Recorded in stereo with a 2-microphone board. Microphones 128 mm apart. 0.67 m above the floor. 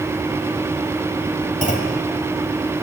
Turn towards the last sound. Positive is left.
turn(degrees=85)